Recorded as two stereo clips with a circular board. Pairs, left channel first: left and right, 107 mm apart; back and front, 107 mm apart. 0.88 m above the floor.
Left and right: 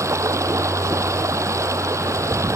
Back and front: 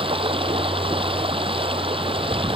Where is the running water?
30° right.